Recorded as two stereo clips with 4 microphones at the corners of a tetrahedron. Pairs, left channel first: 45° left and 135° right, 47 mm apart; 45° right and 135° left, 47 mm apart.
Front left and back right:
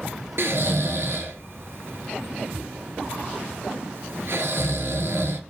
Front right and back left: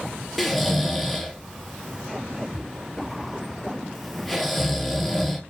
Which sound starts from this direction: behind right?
Snoring, at 0.4 s.